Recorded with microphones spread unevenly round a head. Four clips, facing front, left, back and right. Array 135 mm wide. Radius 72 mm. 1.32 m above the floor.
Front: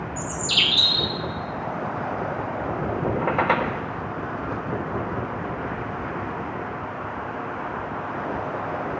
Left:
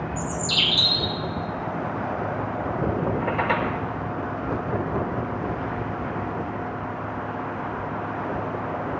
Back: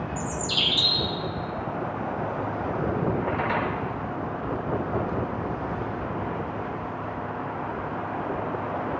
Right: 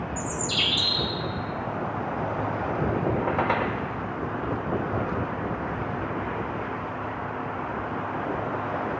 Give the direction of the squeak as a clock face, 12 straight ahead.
12 o'clock.